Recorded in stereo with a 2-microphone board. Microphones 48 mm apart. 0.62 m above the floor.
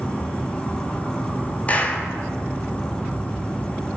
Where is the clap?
30° left (ahead or behind), 0.5 m.